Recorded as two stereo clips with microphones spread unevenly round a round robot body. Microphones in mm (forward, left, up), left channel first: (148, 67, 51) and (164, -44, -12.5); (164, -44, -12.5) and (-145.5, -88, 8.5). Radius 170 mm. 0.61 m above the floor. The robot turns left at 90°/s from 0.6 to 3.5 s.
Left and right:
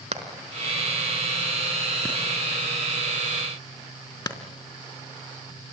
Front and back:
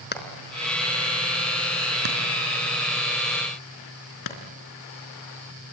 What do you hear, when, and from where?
0.1 s hammering: 50° right, 3.5 m; by 5.7 s 45° left, 3.5 m